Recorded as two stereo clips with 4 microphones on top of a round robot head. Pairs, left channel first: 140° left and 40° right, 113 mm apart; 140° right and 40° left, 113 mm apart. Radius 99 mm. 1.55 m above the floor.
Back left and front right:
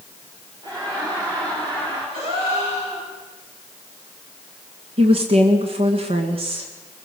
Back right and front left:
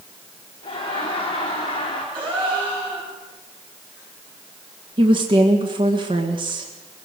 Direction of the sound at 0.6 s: 95° right.